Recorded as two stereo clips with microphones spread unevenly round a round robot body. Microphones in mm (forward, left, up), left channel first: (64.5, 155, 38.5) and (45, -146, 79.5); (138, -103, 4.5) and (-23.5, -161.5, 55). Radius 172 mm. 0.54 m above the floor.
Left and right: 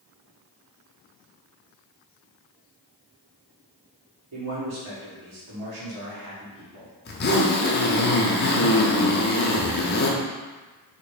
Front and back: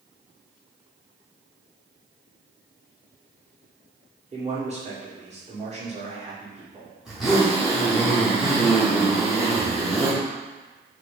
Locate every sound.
4.3 s a man speaking: 105° right, 1.6 m
7.0 s a zipper: 90° left, 1.0 m